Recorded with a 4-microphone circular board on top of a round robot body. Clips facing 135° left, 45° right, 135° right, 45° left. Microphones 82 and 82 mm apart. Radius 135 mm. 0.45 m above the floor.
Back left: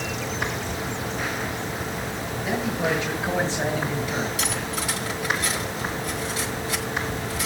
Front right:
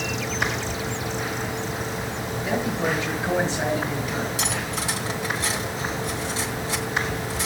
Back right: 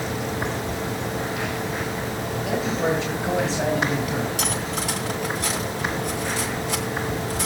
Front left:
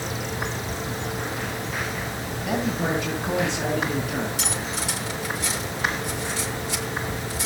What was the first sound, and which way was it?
A man speaking, 110° right.